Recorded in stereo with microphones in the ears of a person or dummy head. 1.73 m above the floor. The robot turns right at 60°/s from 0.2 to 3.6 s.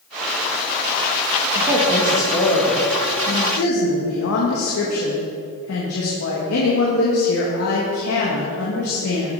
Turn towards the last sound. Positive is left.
turn(degrees=85)